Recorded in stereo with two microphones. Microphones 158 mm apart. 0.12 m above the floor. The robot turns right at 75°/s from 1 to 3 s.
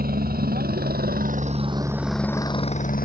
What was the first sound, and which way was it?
A helicopter, 70° right (ahead or behind).